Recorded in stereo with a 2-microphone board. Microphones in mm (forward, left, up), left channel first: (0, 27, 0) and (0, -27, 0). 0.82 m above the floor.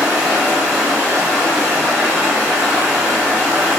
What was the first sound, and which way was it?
Running water, 25° right (ahead or behind).